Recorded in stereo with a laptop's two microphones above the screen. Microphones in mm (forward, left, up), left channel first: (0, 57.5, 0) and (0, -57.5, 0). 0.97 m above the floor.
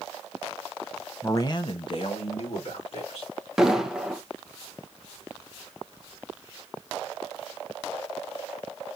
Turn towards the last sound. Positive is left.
turn(degrees=-5)  # may be behind; listen again after turning